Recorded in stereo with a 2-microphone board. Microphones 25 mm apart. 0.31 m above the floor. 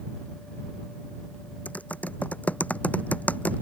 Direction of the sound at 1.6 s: 85° left.